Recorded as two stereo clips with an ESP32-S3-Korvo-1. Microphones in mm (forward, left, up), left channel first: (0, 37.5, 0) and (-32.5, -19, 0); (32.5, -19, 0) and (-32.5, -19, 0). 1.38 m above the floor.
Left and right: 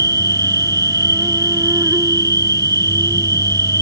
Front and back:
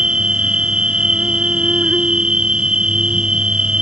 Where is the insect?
105° right.